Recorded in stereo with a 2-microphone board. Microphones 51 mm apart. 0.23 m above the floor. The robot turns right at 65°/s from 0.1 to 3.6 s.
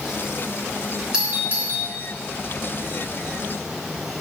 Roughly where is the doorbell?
Centre.